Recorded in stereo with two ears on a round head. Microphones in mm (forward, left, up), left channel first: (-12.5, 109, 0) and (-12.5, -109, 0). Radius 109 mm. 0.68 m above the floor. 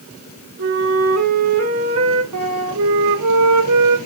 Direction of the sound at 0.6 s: 60° right (ahead or behind).